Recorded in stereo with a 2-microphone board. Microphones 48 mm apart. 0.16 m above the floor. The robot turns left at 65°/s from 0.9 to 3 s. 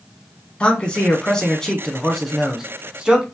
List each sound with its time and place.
0.6 s a man speaking: 20° left (ahead or behind), 1.1 m; by 3.2 s 15° right (ahead or behind), 1.1 m